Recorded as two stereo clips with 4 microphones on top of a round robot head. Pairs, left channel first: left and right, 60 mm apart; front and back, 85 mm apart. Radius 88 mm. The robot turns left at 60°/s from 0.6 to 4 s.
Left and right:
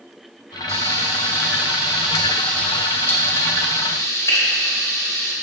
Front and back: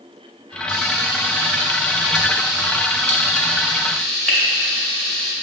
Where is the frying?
80° right, 1.9 m; by 5.3 s 80° left, 1.9 m.